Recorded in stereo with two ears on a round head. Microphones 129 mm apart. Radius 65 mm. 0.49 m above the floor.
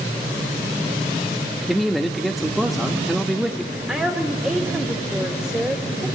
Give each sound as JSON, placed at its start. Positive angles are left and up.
{"t": 1.7, "sound": "a man speaking", "side_deg": 0, "distance_m": 0.8}
{"t": 3.9, "sound": "a woman speaking", "side_deg": -5, "distance_m": 1.5}